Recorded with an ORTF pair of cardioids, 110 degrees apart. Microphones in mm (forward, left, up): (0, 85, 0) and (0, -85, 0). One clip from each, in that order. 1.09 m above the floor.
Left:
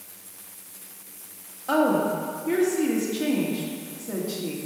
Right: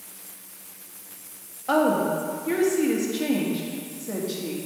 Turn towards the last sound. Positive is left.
turn(degrees=-5)